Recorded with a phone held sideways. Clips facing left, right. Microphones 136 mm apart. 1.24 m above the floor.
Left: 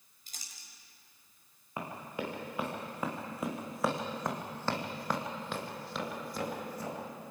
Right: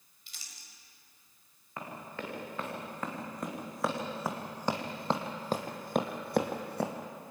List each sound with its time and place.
0.3 s crumpling: 45° left (ahead or behind), 5 m
1.8 s running footsteps: 15° left (ahead or behind), 7 m; by 6.9 s 65° right (ahead or behind), 3 m